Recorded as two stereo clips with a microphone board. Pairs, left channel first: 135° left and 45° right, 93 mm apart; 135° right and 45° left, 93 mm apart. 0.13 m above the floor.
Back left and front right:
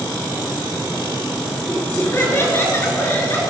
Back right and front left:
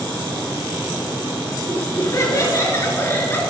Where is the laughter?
175° right, 2.5 m; by 3.4 s 175° left, 1.9 m.